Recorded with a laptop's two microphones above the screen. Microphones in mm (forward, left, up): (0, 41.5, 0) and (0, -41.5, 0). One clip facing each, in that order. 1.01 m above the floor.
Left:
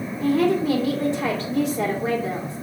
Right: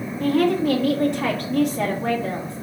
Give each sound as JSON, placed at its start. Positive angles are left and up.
{"t": 0.2, "sound": "a woman speaking", "side_deg": -75, "distance_m": 2.0}